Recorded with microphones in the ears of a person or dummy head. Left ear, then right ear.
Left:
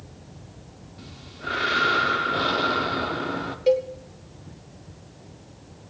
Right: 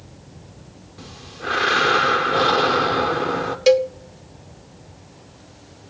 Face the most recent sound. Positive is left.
turn(degrees=-45)  # may be behind; listen again after turning